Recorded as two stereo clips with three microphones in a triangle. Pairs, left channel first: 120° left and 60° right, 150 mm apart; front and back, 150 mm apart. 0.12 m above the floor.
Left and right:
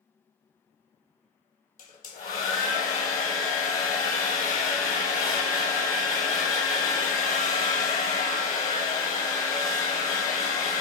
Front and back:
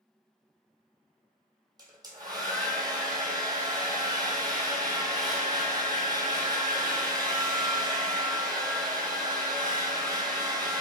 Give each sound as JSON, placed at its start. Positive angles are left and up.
{"t": 1.8, "sound": "a hair dryer", "azimuth_deg": 120, "distance_m": 0.7}